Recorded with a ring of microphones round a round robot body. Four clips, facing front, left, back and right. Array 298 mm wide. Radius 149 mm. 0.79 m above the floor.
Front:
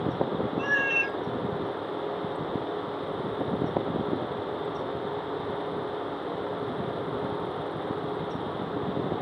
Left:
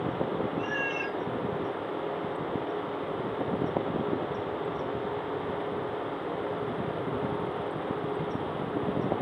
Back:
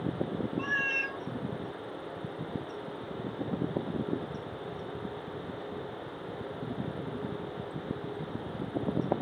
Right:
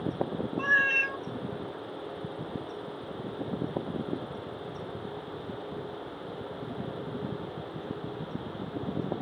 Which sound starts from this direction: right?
A cat meowing, at 0.6 s.